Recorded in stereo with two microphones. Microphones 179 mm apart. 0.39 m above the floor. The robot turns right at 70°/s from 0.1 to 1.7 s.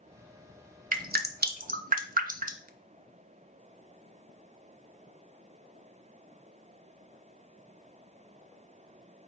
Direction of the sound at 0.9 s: 50° right (ahead or behind).